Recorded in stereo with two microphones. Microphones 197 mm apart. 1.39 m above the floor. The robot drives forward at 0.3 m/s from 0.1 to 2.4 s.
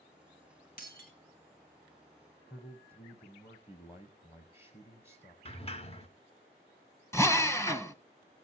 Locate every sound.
0.8 s breaking glass: 50° left (ahead or behind), 3.5 m
2.5 s a man speaking: 30° left (ahead or behind), 0.9 m
5.5 s a sliding door: 30° left (ahead or behind), 1.0 m
7.1 s a drill: 15° left (ahead or behind), 0.7 m